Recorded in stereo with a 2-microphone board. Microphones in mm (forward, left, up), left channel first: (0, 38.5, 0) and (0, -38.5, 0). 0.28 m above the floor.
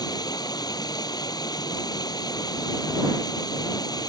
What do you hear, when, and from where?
0.0 s running water: 60° left (ahead or behind)